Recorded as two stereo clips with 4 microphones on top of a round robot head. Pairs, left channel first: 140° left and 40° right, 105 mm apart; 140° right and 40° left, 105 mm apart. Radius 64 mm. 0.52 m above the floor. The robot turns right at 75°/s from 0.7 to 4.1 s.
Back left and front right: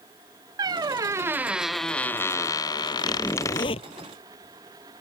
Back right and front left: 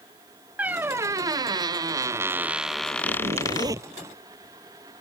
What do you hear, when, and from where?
0.6 s a squeak: 25° right; by 3.7 s 160° right
3.0 s a zipper: 50° left; by 3.9 s 110° left